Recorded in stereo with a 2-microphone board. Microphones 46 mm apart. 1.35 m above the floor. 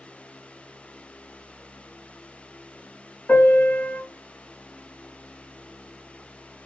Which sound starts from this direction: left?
A piano, at 3.3 s.